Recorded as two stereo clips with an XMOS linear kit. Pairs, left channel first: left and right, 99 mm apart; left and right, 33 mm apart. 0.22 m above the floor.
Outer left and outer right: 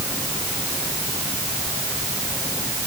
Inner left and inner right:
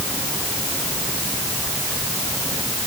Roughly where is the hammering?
I don't hear hammering.